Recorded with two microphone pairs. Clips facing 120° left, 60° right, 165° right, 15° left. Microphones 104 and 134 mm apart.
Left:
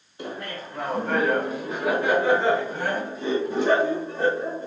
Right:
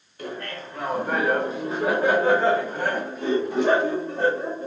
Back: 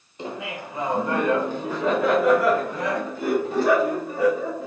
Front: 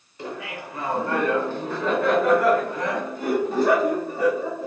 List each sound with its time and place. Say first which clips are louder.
0.2 s laughter: even, back 1 dB; 160° left, 1.3 m; by 4.7 s 75° right, 3 m